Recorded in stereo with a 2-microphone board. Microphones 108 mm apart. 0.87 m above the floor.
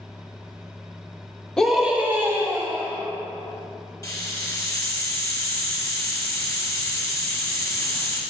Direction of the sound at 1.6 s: 5° left (ahead or behind).